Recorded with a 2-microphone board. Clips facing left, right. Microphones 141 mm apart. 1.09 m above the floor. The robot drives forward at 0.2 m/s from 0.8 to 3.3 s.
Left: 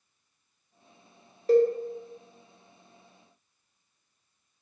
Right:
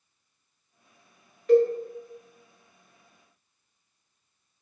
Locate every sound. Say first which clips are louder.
1.5 s a cowbell: right 1 dB; 35° left (ahead or behind), 0.5 m